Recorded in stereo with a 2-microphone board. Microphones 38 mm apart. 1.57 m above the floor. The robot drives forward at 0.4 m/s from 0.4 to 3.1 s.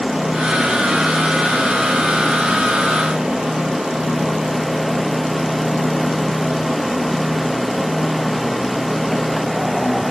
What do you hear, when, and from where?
Only background noise.